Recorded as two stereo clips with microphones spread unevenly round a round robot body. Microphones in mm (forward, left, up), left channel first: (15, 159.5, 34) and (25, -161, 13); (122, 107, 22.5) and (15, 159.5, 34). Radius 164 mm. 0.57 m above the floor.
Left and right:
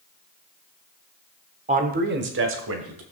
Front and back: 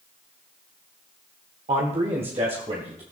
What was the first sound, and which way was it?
A man speaking, 155° right.